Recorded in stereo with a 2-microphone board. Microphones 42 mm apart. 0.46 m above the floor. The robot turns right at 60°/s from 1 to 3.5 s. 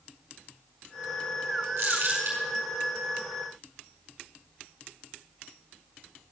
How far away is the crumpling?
About 5.5 m.